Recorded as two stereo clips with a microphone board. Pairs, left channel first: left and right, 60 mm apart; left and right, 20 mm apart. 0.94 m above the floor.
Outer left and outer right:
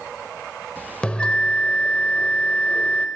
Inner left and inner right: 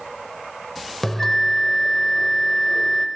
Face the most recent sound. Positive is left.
turn(degrees=15)  # may be behind; listen again after turning